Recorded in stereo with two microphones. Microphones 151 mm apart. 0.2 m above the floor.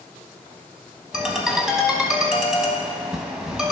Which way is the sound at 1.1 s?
5° right (ahead or behind).